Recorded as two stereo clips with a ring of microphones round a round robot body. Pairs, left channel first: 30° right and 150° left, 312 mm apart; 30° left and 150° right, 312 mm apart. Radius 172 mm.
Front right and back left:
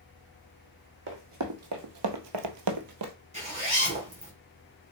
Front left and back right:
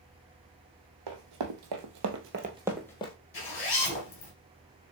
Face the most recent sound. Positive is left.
turn(degrees=80)